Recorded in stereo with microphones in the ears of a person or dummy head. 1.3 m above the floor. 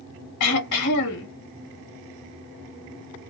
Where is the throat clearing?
65° left (ahead or behind), 1.4 m.